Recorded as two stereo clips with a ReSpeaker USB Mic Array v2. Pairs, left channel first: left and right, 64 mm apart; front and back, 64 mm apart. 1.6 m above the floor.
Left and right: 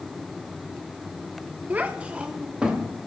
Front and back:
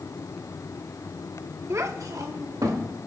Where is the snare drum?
I don't hear a snare drum.